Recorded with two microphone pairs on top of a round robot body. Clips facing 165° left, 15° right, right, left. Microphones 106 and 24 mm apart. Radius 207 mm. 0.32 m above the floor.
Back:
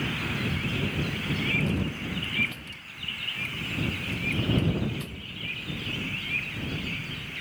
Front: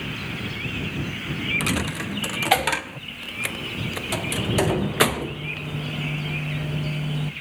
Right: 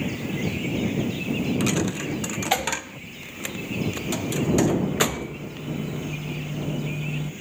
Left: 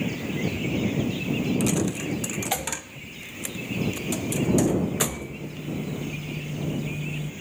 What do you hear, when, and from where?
1.6 s a dropped coin: 25° right